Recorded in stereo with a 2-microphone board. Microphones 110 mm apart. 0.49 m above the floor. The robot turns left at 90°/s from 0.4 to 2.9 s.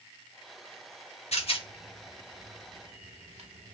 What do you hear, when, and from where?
1.3 s a rattle: 75° left (ahead or behind), 1.0 m; by 3.7 s 70° right (ahead or behind), 1.0 m